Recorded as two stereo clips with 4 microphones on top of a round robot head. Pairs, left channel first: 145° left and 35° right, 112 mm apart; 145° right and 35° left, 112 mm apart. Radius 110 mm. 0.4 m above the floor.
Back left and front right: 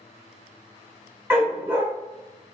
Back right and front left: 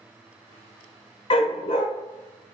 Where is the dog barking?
105° right, 0.9 m.